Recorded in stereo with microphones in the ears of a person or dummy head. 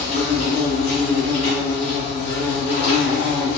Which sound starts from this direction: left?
An insect, at 0.0 s.